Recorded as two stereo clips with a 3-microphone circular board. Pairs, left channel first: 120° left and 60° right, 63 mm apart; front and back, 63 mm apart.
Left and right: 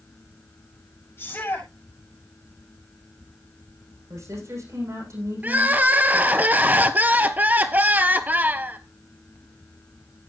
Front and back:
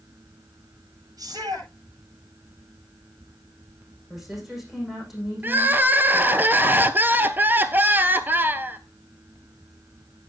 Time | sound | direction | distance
1.2 | a shout | 170° left | 8 m
4.1 | a woman speaking | 95° right | 9 m
5.4 | crying | 120° right | 0.8 m